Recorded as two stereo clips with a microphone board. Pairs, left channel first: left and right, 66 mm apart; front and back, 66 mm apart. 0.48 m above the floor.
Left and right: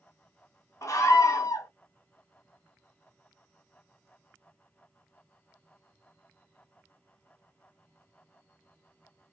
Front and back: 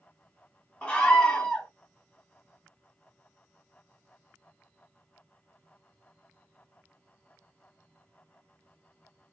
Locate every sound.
0.8 s a scream: 65° left, 1.7 m